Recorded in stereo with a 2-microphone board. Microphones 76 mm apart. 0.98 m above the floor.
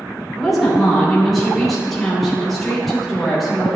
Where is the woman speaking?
Centre (ahead or behind), 3 m.